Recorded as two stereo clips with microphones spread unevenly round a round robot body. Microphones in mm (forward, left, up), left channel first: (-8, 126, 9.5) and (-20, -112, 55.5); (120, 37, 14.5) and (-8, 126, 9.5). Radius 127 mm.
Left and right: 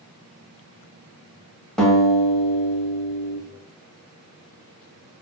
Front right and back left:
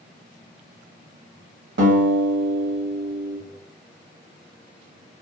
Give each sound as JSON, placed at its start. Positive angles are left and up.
{"t": 1.8, "sound": "a guitar", "azimuth_deg": 175, "distance_m": 0.7}